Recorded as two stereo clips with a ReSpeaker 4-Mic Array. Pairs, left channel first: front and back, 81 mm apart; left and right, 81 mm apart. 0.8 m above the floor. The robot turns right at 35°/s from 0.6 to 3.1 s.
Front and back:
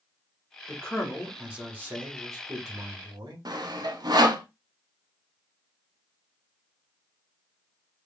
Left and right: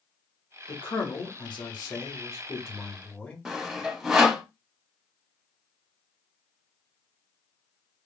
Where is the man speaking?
75° left, 1.8 m; by 3.5 s 160° left, 1.8 m.